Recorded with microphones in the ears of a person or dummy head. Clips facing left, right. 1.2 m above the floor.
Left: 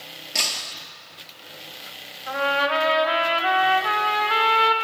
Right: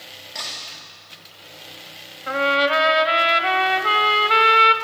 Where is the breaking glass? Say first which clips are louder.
Left 4 dB; 50° left (ahead or behind), 2 m.